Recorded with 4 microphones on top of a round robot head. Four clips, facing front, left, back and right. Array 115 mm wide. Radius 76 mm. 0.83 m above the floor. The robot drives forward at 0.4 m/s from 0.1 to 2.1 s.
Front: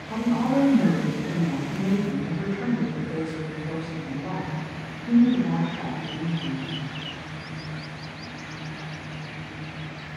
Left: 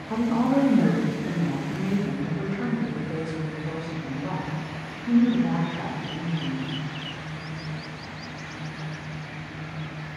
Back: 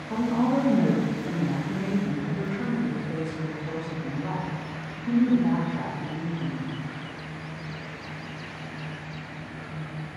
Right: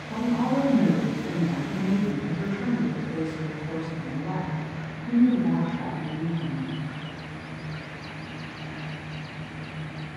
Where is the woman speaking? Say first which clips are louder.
Left 2 dB, front 1 dB; 100° left, 0.6 m; by 6.8 s 155° left, 1.0 m.